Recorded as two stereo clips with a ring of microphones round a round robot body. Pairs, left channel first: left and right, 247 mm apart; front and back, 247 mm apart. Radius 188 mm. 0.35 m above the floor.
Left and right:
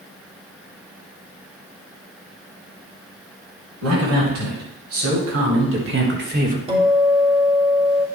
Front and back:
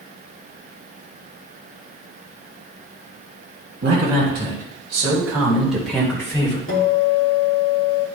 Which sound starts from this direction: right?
A man speaking, at 3.8 s.